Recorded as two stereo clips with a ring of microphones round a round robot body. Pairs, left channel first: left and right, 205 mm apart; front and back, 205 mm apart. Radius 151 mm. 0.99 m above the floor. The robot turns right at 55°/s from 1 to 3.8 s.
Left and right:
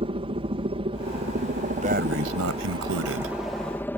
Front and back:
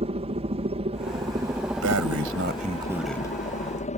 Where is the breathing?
160° right; by 3.4 s 75° right.